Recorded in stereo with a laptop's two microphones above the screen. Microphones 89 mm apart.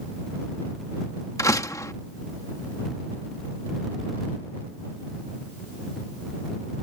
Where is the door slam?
35° left (ahead or behind).